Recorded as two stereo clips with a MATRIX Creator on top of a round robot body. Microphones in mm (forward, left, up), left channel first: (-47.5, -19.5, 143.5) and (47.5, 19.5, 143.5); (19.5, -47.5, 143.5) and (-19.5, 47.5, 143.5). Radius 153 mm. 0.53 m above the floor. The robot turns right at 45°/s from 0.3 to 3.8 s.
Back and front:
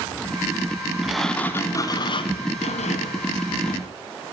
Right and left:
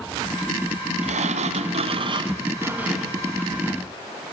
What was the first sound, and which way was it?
A sliding door, 110° left.